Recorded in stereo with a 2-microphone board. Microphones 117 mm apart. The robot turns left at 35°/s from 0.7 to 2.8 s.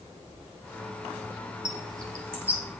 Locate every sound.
1.6 s a bird: 45° right (ahead or behind), 3.5 m; by 2.6 s 10° right (ahead or behind), 3.5 m